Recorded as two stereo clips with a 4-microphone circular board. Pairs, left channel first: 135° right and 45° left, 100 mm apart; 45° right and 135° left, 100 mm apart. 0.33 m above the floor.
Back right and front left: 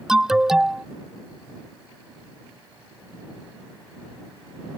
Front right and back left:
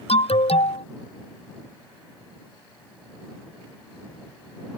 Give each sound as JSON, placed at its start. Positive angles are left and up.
{"t": 0.1, "sound": "an alarm", "azimuth_deg": -40}